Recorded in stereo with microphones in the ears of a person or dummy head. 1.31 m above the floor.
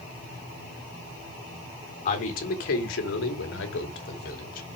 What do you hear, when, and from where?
2.0 s a man speaking: 50° left (ahead or behind), 3 m; by 4.7 s 55° left (ahead or behind), 3.5 m